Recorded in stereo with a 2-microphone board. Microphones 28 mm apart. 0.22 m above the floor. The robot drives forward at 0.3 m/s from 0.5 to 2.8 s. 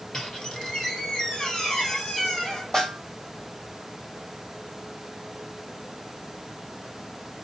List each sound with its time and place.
0.1 s a squeak: 30° left (ahead or behind), 1.4 m; by 2.6 s 20° left (ahead or behind), 2 m
2.7 s a snare drum: 20° left (ahead or behind), 2 m